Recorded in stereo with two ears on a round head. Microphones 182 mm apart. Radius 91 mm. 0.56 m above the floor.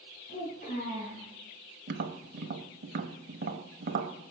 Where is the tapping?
50° right (ahead or behind), 0.9 m.